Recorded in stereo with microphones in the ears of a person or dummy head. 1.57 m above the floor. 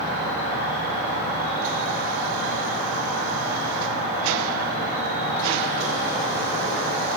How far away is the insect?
About 9 m.